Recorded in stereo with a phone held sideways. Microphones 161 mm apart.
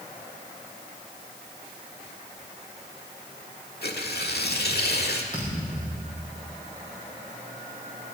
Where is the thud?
30° right (ahead or behind), 7.5 m.